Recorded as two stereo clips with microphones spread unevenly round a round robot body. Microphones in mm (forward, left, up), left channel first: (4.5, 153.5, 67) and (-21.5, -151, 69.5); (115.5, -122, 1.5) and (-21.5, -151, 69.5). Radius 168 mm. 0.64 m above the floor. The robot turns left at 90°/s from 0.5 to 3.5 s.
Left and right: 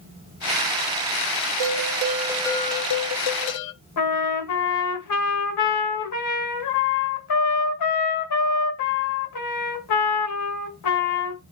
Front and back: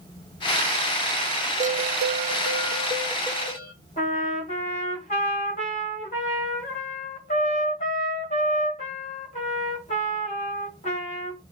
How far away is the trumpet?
About 2.0 m.